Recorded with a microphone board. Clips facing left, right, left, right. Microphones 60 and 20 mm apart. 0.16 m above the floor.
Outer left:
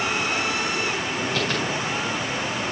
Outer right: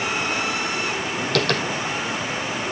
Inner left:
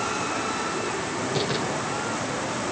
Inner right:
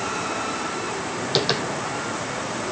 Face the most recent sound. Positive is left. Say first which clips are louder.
# outer right 6 dB, inner right 6 dB
turn(degrees=-75)  # may be behind; listen again after turning